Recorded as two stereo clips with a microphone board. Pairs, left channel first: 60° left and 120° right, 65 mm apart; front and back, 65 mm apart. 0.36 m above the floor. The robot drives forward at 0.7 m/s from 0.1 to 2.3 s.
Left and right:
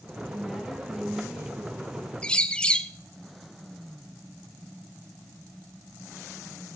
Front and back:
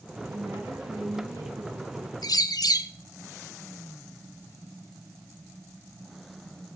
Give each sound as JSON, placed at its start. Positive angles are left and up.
{"t": 0.3, "sound": "a woman speaking", "azimuth_deg": 155, "distance_m": 3.0}
{"t": 2.2, "sound": "a bird", "azimuth_deg": -10, "distance_m": 0.6}